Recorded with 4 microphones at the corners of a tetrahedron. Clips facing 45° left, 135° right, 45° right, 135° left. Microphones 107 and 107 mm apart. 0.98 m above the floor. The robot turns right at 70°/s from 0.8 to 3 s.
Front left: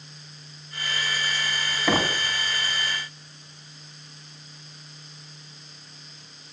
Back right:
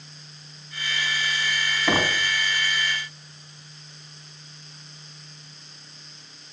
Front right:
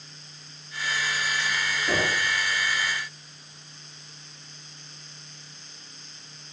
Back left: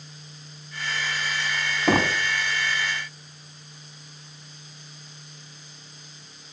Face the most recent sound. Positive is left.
turn(degrees=-155)